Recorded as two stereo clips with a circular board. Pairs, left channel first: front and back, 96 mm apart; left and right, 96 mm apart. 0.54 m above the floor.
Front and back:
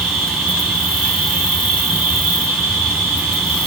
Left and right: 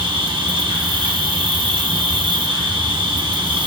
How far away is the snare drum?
I don't hear a snare drum.